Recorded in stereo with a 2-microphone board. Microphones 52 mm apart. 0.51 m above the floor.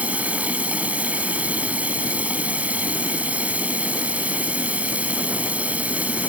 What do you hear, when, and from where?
0.0 s running water: 30° right (ahead or behind)